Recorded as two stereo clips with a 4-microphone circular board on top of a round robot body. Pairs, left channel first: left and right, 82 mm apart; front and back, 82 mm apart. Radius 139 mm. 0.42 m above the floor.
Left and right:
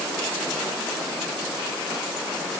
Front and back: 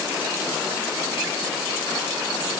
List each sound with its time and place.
Only background noise.